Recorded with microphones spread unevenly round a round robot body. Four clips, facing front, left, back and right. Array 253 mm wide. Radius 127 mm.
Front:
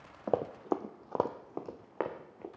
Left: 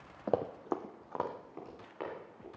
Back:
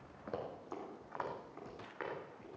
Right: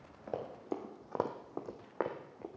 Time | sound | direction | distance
0.3 | running footsteps | 45° left | 1.0 m